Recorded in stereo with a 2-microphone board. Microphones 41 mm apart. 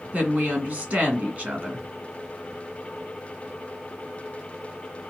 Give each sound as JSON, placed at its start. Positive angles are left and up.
{"t": 0.1, "sound": "a woman speaking", "side_deg": -35, "distance_m": 1.8}